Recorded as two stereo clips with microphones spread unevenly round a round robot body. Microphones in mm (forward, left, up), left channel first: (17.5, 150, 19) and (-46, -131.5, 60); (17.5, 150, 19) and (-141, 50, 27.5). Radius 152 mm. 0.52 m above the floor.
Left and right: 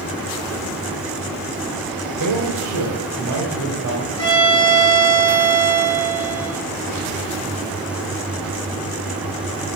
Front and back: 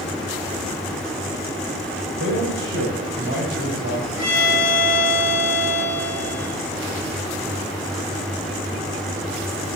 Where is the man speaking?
115° right, 3 m; by 4.1 s 150° right, 4 m.